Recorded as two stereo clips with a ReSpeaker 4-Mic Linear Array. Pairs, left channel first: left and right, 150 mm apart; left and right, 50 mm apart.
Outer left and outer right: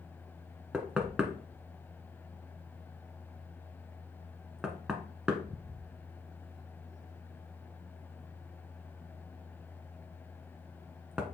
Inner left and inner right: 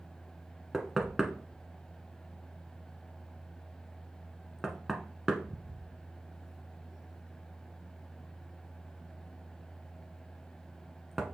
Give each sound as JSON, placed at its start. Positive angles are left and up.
{"t": 0.7, "sound": "knocking", "side_deg": -5, "distance_m": 1.2}